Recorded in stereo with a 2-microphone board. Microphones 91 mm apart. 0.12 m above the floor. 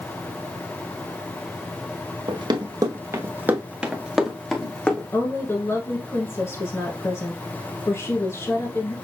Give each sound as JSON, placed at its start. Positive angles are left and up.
{"t": 2.3, "sound": "running footsteps", "side_deg": -55, "distance_m": 1.3}
{"t": 5.1, "sound": "a woman speaking", "side_deg": 30, "distance_m": 1.3}